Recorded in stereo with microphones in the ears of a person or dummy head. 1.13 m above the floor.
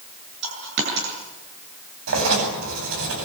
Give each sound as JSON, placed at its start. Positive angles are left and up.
{"t": 0.4, "sound": "a dropped coin", "side_deg": -70, "distance_m": 8.0}
{"t": 2.1, "sound": "writing", "side_deg": -80, "distance_m": 9.5}